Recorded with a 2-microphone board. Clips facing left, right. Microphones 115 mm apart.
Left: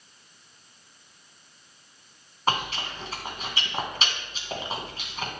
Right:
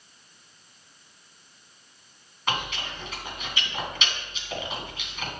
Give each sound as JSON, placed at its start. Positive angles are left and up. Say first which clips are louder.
{"t": 2.5, "sound": "chewing", "louder": "left 3 dB", "side_deg": 40, "distance_m": 1.6}